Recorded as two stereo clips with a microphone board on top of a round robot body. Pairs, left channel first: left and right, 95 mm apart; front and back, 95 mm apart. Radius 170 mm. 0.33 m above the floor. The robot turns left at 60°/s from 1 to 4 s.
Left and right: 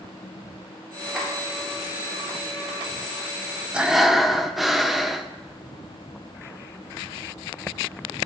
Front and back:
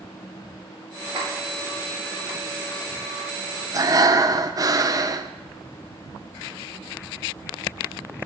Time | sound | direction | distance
1.1 | a clap | 175° right | 6 m
3.7 | breathing | 160° right | 1.0 m